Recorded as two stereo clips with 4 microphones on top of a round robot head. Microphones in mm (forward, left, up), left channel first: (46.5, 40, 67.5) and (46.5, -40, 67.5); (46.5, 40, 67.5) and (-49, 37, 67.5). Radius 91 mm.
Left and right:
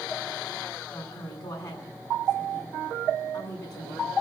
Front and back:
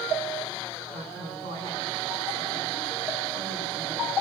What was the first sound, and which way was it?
A woman speaking, 170° left.